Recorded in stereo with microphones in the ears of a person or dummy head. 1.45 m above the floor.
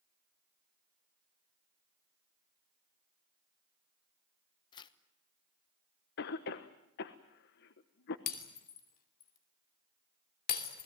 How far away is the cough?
About 1.2 m.